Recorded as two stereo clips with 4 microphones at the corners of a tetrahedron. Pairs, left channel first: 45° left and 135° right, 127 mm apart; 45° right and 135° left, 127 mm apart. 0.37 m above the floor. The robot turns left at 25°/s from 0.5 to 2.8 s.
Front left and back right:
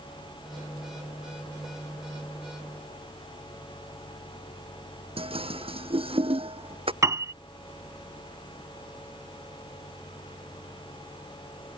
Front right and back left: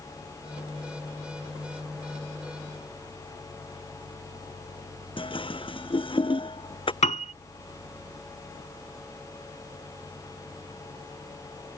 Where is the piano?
70° right.